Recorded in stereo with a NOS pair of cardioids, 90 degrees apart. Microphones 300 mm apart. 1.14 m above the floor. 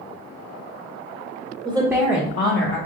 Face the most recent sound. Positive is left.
turn(degrees=50)